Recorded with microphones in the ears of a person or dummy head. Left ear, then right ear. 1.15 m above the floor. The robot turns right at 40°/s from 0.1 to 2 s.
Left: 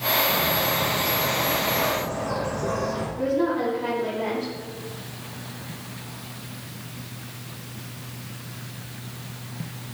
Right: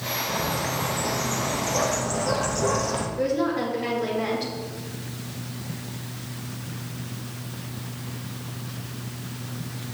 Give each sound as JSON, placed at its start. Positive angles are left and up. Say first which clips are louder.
{"t": 0.3, "sound": "a bird", "louder": "left 4 dB", "azimuth_deg": 180, "distance_m": 1.6}
{"t": 3.2, "sound": "a woman speaking", "louder": "left 1 dB", "side_deg": -20, "distance_m": 4.5}